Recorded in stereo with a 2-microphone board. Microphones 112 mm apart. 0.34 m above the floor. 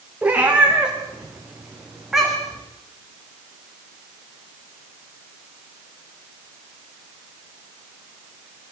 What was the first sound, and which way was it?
A cat meowing, 10° right (ahead or behind).